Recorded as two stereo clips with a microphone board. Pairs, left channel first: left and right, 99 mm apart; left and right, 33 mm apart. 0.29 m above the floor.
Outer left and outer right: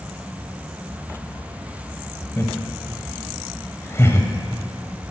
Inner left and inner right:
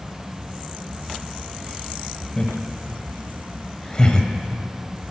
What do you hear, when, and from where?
2.4 s laughter: 25° left (ahead or behind), 1.4 m